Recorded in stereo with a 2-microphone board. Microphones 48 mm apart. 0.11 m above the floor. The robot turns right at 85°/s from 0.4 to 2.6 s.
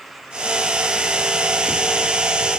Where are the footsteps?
I don't hear footsteps.